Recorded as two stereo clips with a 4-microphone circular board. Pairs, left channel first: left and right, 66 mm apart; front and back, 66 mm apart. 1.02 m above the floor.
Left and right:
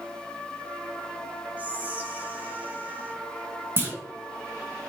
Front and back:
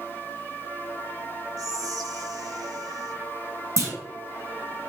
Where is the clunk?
140° right, 2.5 m.